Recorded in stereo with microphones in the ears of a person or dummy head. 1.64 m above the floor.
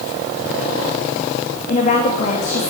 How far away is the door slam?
No door slam in this recording.